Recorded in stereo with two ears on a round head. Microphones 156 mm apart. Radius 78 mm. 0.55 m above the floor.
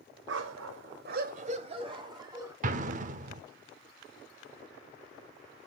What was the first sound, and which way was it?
A dog barking, 65° right (ahead or behind).